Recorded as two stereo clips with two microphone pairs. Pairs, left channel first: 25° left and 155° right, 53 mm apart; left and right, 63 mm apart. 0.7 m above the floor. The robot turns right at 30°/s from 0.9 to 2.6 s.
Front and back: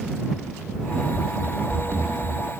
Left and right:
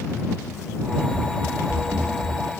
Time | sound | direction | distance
1.1 | running footsteps | 135° right | ?